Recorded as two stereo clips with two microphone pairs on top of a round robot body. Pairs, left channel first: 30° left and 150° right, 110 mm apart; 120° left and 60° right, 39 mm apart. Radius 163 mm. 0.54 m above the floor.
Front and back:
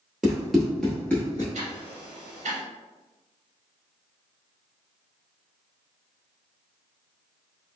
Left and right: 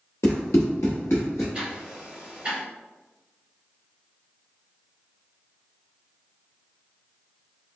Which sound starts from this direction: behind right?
Ticking, at 1.5 s.